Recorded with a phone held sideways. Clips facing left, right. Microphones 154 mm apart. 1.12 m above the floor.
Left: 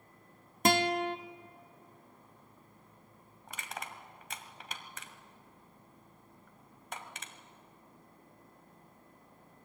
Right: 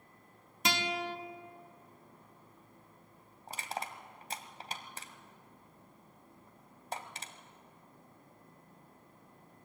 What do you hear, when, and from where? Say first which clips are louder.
0.7 s a guitar: left 7 dB; 50° left (ahead or behind), 1.2 m
3.5 s crushing: right 4 dB; 35° right (ahead or behind), 1.9 m